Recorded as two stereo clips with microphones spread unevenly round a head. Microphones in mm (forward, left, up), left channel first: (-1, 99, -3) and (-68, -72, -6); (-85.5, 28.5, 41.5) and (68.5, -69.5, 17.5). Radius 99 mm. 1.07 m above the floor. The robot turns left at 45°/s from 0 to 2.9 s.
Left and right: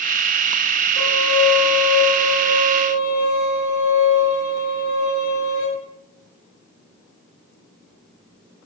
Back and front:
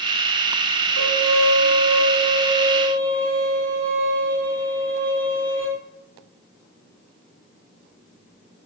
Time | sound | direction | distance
1.0 | a violin | 135° left | 4 m